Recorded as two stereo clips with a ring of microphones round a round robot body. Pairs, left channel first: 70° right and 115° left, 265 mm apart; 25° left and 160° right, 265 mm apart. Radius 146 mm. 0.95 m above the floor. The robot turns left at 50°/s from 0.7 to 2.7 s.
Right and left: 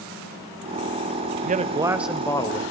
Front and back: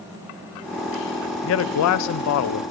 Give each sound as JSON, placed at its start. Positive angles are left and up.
{"t": 1.4, "sound": "a man speaking", "azimuth_deg": 55, "distance_m": 0.6}